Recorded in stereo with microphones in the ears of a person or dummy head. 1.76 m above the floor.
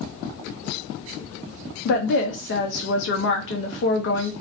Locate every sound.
1.9 s a woman speaking: 50° left (ahead or behind), 0.7 m